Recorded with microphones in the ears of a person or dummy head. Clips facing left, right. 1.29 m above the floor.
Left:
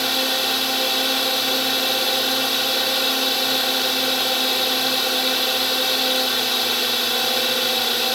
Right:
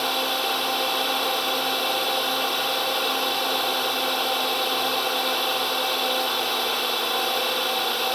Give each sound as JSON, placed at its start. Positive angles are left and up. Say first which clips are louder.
{"t": 0.0, "sound": "a drone", "louder": "left 2 dB", "side_deg": 30}